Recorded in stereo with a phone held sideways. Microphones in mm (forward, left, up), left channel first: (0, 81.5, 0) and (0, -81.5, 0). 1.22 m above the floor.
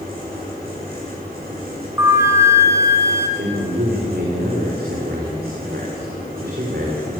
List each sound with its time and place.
0.0 s a fan: 65° right (ahead or behind), 10 m
2.0 s a flute: 15° right (ahead or behind), 3 m
3.4 s a man speaking: 70° right (ahead or behind), 4.5 m